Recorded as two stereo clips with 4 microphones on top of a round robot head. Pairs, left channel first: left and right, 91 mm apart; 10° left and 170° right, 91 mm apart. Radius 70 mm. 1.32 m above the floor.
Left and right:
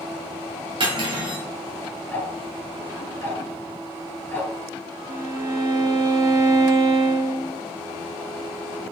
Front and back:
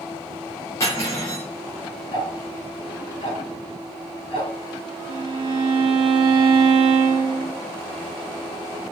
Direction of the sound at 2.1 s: 25° left.